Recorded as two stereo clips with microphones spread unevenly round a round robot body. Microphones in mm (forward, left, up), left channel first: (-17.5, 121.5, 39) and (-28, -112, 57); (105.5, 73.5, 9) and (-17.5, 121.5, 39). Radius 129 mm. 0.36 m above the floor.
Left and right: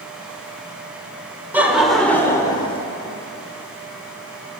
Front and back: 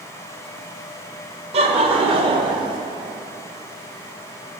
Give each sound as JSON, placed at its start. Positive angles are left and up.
{"t": 1.5, "sound": "laughter", "azimuth_deg": -175, "distance_m": 1.2}